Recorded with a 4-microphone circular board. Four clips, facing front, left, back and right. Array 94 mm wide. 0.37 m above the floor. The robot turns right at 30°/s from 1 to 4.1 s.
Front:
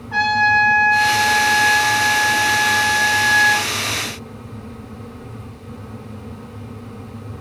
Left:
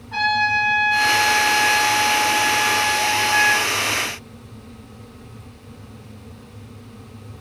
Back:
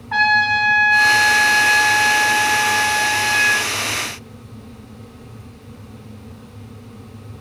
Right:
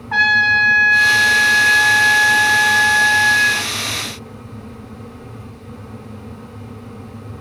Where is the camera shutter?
No camera shutter in this recording.